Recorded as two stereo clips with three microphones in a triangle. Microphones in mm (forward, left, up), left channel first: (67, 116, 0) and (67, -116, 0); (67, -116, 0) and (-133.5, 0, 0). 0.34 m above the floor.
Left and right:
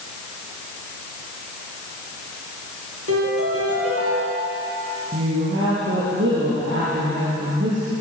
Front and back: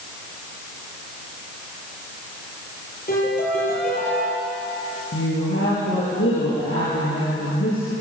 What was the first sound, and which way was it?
A piano, 80° right.